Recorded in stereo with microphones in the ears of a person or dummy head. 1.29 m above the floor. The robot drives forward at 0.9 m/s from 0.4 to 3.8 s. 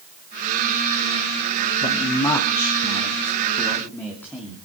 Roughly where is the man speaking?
Left.